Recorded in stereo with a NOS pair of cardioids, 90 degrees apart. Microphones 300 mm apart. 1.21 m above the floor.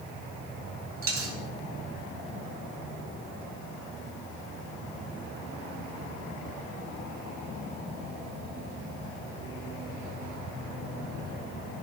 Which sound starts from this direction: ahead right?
A dropped coin, at 1.0 s.